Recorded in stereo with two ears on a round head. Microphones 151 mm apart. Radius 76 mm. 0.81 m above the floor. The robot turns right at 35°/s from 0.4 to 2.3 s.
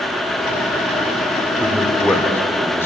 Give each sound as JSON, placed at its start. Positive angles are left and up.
{"t": 1.6, "sound": "a man speaking", "side_deg": -10, "distance_m": 3.0}